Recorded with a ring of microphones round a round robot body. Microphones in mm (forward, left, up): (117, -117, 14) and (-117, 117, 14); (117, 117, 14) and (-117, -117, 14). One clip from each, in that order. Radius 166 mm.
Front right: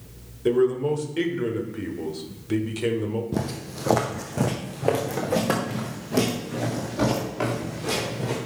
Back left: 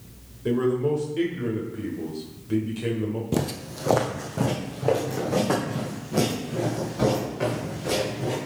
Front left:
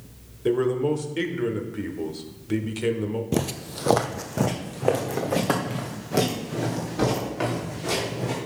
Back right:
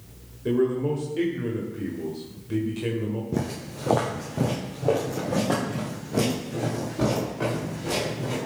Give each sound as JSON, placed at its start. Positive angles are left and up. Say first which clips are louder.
{"t": 0.5, "sound": "a man speaking", "louder": "front right 2 dB, front left 2 dB", "azimuth_deg": 5, "distance_m": 1.0}
{"t": 3.3, "sound": "footsteps", "louder": "back left 2 dB, front left 3 dB", "azimuth_deg": 75, "distance_m": 0.6}